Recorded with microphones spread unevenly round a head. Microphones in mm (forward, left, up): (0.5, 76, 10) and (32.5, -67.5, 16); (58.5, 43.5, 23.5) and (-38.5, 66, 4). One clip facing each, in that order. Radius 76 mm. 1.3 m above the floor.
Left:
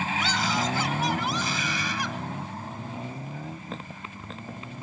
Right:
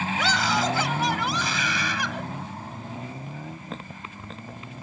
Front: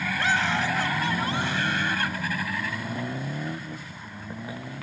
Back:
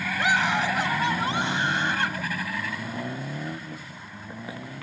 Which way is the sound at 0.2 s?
110° right.